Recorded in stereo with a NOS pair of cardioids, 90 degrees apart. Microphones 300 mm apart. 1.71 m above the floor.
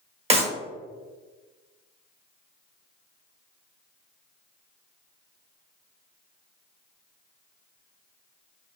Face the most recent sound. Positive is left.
turn(degrees=-20)